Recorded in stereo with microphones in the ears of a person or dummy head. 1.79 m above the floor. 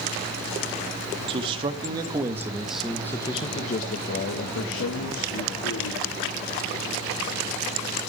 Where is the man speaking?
35° right (ahead or behind), 3 m; by 6.4 s 80° left, 4.5 m.